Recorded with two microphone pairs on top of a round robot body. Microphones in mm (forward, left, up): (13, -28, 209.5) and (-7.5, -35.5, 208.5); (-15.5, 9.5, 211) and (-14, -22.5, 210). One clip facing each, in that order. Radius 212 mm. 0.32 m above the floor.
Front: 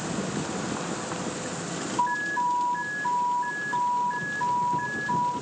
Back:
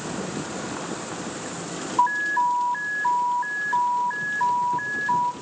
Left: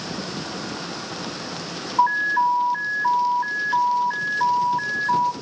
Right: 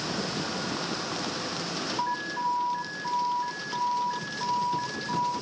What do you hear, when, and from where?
2.0 s an alarm: 140° left, 2.0 m